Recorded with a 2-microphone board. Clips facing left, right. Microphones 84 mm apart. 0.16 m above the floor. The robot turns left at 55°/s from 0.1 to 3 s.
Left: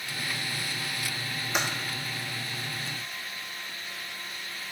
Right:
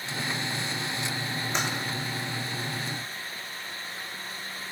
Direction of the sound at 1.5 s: 10° left (ahead or behind).